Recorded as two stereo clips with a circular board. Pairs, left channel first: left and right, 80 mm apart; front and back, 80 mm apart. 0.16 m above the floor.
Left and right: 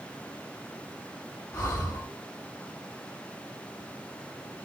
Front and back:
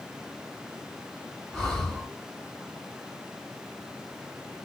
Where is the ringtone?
No ringtone in this recording.